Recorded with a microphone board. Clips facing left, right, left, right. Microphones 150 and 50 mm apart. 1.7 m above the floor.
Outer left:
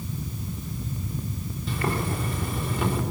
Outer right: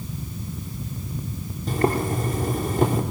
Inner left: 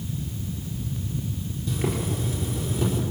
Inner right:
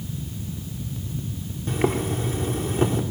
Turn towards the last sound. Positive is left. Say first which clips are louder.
# outer right 6 dB, inner right 5 dB
turn(degrees=-45)  # may be behind; listen again after turning